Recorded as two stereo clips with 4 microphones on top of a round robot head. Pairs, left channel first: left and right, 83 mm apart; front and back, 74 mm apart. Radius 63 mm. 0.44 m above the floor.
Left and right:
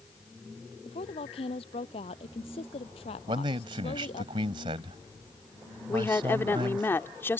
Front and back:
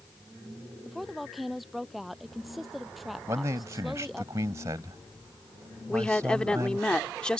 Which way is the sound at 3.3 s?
120° right.